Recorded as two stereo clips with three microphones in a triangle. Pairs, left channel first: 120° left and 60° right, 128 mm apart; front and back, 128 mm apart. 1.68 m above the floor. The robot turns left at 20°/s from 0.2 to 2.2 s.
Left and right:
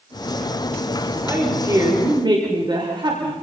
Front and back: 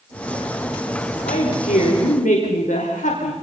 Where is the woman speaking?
15° left, 6 m; by 3.3 s 5° right, 6 m.